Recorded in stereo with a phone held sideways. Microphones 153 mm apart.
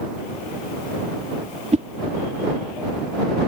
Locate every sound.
1.7 s a whoosh: 45° right (ahead or behind)